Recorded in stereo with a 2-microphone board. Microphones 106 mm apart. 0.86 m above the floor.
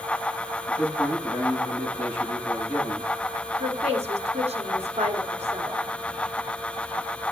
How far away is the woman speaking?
About 1.8 m.